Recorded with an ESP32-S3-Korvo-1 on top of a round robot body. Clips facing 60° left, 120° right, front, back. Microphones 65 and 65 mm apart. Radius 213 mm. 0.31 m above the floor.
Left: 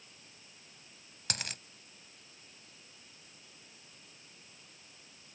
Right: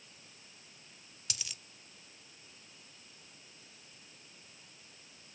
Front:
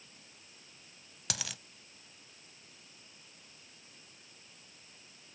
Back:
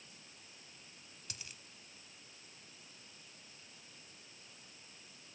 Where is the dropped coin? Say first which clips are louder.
Left 8 dB, front 13 dB; 15° left.